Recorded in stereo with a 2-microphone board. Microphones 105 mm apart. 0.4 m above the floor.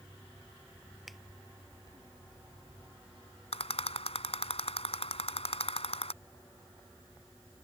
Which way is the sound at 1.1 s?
Centre (ahead or behind).